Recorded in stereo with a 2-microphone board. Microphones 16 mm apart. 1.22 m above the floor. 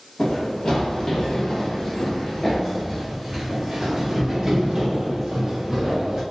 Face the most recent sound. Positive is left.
turn(degrees=-30)  # may be behind; listen again after turning